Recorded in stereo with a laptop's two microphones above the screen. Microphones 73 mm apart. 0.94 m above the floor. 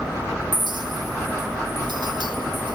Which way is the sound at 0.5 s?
80° right.